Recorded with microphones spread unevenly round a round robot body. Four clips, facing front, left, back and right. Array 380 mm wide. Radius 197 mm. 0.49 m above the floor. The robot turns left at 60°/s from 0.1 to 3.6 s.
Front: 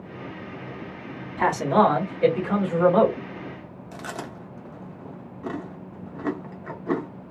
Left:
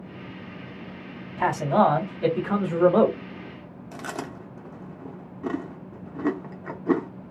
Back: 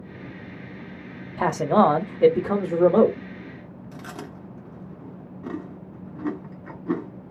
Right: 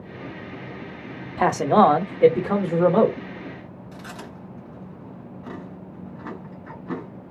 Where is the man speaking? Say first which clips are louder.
Right 4 dB, even; 105° right, 0.9 m; by 3.2 s 150° left, 0.9 m.